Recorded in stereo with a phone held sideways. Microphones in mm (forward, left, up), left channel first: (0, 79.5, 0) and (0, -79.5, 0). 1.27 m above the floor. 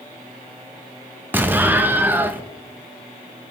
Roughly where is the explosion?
Centre.